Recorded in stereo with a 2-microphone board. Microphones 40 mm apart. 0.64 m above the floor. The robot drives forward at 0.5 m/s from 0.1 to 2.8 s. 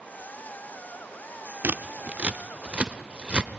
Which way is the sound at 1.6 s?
50° right (ahead or behind).